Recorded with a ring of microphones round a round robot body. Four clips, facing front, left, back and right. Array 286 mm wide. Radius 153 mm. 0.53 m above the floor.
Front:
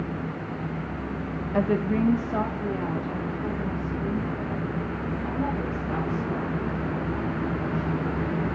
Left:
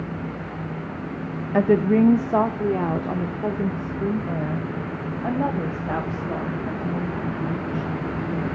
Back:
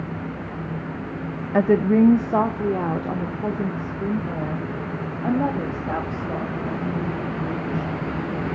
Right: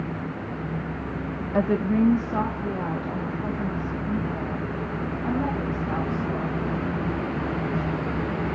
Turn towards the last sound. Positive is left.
turn(degrees=130)